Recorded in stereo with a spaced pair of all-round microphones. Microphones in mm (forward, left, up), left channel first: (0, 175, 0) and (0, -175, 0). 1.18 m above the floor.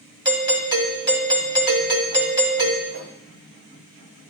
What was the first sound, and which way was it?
A doorbell, 15° right (ahead or behind).